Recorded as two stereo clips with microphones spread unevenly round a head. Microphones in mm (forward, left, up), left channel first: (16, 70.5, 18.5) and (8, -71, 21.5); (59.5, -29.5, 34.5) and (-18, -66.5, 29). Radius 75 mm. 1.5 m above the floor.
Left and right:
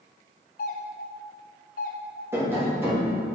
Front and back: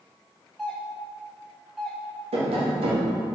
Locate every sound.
0.6 s a doorbell: 115° left, 0.9 m
2.3 s tapping: 170° right, 1.3 m